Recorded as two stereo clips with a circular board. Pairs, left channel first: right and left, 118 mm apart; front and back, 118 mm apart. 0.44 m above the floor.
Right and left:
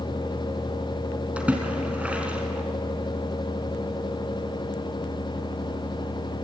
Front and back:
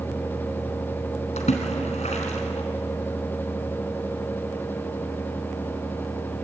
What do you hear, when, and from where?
1.4 s a splash: 10° left, 3 m